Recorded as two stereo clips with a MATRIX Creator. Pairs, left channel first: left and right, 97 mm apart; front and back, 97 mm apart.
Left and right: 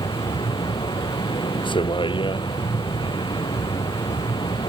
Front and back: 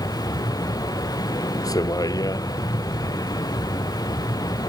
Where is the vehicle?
55° left.